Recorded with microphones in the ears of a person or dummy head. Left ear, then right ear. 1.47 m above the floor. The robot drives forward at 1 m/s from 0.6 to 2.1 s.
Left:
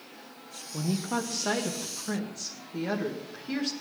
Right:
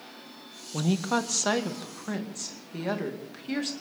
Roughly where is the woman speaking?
Right.